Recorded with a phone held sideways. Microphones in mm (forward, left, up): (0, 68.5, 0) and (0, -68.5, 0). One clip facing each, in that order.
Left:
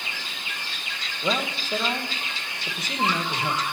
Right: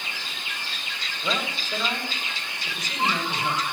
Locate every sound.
1.2 s a man speaking: 25° left (ahead or behind), 2 m